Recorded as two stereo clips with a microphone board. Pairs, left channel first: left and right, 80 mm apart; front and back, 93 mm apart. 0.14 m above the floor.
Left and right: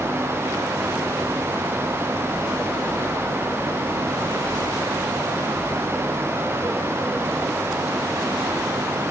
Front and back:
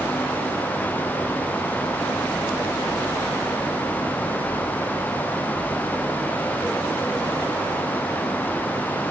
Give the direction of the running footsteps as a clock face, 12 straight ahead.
I don't hear running footsteps.